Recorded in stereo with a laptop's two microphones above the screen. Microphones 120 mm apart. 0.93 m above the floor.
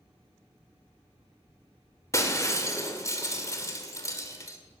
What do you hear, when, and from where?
2.1 s breaking glass: 30° left (ahead or behind), 2 m